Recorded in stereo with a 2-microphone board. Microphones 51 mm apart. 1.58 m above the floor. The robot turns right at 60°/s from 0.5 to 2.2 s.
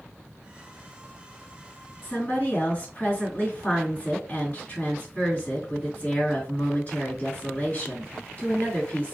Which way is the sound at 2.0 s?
45° left (ahead or behind).